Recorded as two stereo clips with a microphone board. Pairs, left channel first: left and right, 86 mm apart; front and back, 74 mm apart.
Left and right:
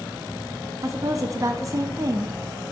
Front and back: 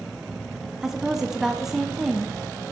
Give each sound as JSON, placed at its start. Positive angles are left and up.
{"t": 0.8, "sound": "a woman speaking", "azimuth_deg": -100, "distance_m": 1.0}